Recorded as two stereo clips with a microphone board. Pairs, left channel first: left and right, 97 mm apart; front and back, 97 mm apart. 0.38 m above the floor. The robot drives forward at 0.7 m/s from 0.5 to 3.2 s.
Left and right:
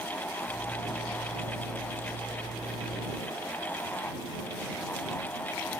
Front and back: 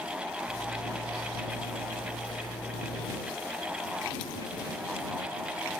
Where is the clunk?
No clunk in this recording.